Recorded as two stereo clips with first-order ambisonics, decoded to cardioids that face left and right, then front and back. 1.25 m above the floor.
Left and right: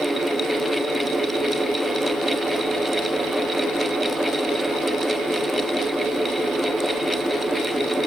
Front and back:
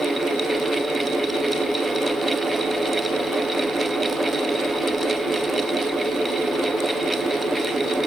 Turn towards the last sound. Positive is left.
No sound to turn to.